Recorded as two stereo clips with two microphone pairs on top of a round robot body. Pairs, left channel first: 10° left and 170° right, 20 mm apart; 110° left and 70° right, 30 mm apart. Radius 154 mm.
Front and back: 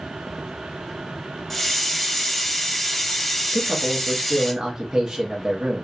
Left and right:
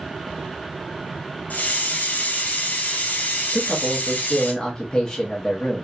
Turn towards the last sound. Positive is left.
turn(degrees=175)